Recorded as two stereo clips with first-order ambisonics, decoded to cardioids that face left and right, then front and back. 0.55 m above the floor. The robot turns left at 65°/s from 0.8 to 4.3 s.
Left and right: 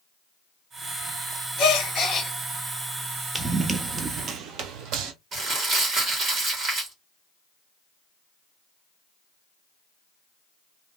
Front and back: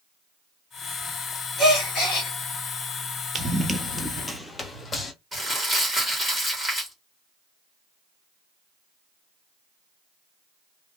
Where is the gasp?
60° left, 2 m; by 2.3 s 15° left, 2 m.